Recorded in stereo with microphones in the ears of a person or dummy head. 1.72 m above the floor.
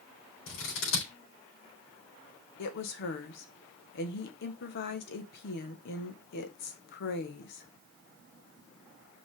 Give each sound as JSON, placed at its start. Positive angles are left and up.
{"t": 0.5, "sound": "scissors", "side_deg": 65, "distance_m": 4.0}
{"t": 2.6, "sound": "a woman speaking", "side_deg": 60, "distance_m": 1.6}